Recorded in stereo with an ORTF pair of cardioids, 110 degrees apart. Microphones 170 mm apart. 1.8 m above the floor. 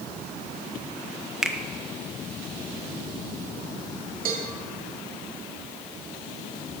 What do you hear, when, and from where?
1.4 s a finger snap: 5° right, 1.3 m
4.2 s a cowbell: 55° right, 3.5 m